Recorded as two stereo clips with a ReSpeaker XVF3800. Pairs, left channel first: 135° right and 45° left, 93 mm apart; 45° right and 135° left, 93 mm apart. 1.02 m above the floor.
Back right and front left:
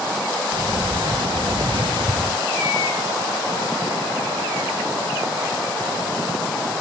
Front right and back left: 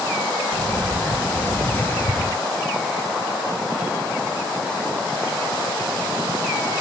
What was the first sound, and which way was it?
A sliding door, 20° left.